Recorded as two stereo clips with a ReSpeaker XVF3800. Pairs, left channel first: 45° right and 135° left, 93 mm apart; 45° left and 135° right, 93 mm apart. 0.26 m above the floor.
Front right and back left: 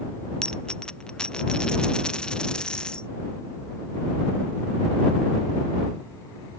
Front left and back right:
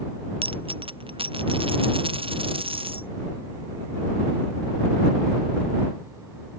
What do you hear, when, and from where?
0.4 s a dropped coin: 125° right